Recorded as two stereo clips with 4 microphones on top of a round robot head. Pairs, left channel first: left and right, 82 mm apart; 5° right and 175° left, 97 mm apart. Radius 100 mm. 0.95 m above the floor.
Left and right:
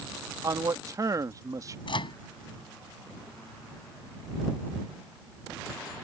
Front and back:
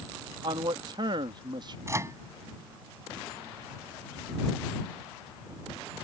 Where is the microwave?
115° left.